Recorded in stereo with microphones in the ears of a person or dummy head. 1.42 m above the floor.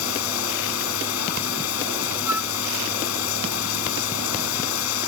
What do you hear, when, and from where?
0.0 s running water: 80° left
2.3 s a flute: 10° right (ahead or behind)